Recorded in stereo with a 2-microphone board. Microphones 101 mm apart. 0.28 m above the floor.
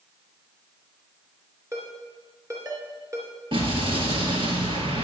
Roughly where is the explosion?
Right.